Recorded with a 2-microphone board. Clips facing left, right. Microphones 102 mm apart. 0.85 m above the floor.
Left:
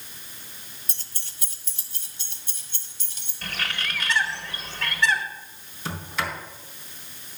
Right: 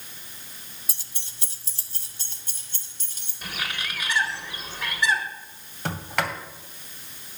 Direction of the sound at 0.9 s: 5° right (ahead or behind).